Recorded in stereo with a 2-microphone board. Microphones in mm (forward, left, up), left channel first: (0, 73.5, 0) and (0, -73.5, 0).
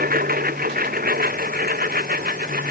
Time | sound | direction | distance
0.0 | a lawn mower | 90° right | ?